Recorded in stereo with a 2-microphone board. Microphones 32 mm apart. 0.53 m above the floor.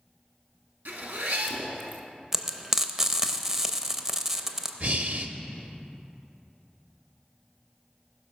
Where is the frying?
15° right (ahead or behind), 0.6 m.